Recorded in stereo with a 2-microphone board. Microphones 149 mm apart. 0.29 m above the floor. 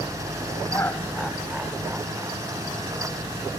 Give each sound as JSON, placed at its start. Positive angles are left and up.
{"t": 0.7, "sound": "laughter", "side_deg": 20}